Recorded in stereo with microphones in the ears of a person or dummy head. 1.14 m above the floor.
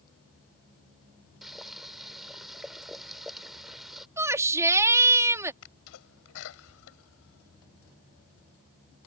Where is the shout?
15° right (ahead or behind).